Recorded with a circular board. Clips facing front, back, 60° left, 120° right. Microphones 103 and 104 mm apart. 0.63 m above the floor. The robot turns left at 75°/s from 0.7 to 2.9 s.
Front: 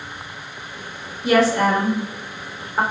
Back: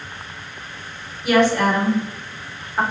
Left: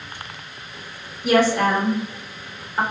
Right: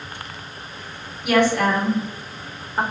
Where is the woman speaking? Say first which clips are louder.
Even, left 1 dB; 40° left, 1.4 m; by 2.8 s 75° right, 1.4 m.